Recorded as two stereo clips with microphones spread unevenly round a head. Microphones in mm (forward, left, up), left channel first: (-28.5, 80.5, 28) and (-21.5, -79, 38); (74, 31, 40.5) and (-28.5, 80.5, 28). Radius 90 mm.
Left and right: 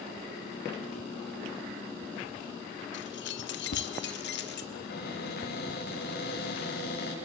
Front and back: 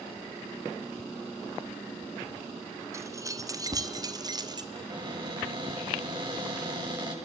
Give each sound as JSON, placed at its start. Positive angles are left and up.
{"t": 2.9, "sound": "keys jangling", "azimuth_deg": 90, "distance_m": 1.8}
{"t": 4.7, "sound": "a cupboard door", "azimuth_deg": 105, "distance_m": 9.0}